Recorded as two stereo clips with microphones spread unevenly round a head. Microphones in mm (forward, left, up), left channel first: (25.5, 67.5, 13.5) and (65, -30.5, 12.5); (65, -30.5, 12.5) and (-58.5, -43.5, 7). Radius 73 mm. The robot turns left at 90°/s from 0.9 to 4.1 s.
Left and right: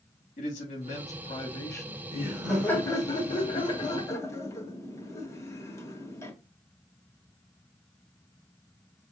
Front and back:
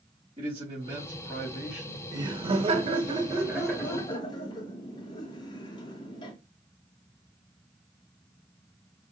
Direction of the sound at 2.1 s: 125° right.